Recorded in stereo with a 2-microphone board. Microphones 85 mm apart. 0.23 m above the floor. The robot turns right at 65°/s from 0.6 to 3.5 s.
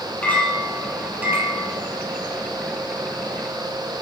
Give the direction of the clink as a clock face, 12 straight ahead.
7 o'clock.